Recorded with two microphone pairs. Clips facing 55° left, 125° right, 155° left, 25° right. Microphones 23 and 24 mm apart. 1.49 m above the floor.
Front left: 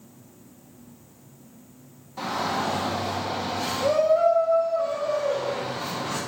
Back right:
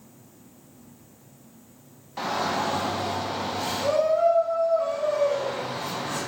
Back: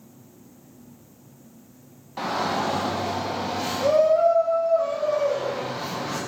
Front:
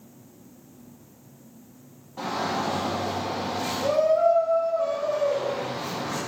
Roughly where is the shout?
Behind.